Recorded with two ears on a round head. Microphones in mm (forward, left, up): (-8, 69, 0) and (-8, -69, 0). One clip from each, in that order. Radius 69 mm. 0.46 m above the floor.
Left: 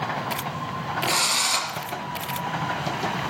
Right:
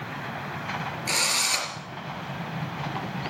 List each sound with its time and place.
1.1 s a drill: 10° right (ahead or behind), 3.5 m